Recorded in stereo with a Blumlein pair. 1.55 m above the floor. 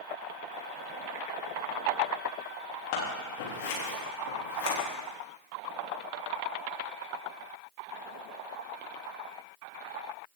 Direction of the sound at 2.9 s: 50° left.